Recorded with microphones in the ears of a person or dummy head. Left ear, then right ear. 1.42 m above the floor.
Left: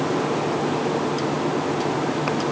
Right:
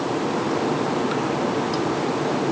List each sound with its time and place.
Only background noise.